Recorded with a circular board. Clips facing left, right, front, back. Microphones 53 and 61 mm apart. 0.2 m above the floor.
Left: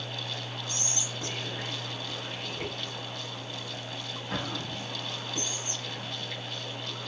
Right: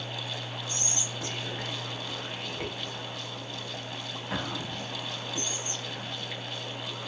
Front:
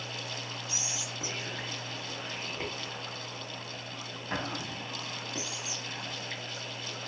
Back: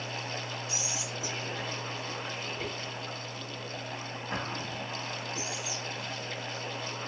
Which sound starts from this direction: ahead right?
Whispering, at 0.7 s.